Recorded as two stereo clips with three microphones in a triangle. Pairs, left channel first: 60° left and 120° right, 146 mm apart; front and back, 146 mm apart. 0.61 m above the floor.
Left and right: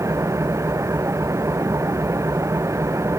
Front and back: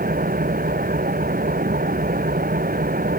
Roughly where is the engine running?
Behind.